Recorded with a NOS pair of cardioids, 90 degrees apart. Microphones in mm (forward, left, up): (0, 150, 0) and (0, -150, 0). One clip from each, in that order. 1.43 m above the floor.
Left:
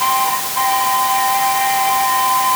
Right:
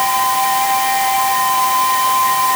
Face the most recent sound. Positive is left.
No sound to turn to.